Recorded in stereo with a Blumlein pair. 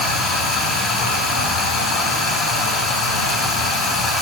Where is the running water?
20° left, 6 m.